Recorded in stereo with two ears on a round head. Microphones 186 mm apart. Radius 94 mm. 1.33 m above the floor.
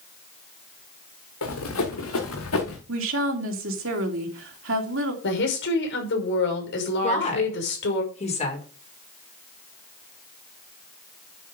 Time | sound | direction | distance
1.4 | running footsteps | 75° left (ahead or behind) | 5.5 m
2.9 | a woman speaking | 65° right (ahead or behind) | 3 m
5.2 | a woman speaking | 65° left (ahead or behind) | 5.5 m
7.0 | a woman speaking | 35° left (ahead or behind) | 5.5 m